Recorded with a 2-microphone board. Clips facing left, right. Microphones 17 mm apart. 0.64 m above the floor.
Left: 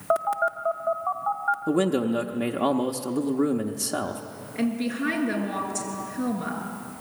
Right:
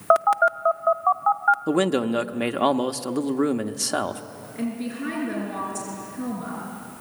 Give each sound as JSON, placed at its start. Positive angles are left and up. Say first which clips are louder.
{"t": 0.1, "sound": "a phone buzzing", "louder": "right 6 dB", "side_deg": -40, "distance_m": 0.6}
{"t": 1.7, "sound": "a man speaking", "louder": "right 1 dB", "side_deg": -25, "distance_m": 0.9}
{"t": 4.5, "sound": "a woman speaking", "louder": "left 3 dB", "side_deg": 35, "distance_m": 7.5}